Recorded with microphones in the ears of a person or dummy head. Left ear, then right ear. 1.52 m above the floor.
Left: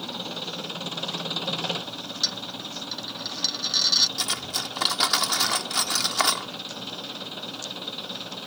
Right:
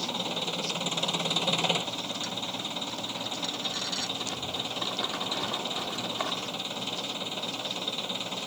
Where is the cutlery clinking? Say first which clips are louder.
Left 5 dB; 65° left (ahead or behind).